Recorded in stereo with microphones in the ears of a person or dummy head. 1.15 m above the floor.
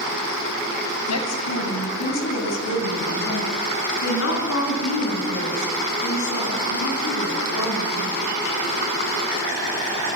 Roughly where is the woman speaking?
Left.